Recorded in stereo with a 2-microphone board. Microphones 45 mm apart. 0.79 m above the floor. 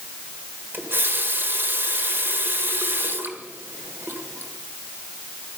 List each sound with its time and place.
0.7 s a running tap: 55° right (ahead or behind), 1.6 m